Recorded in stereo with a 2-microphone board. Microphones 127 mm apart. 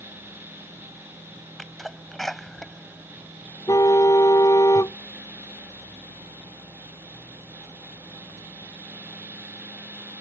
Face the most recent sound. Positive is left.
turn(degrees=25)  # may be behind; listen again after turning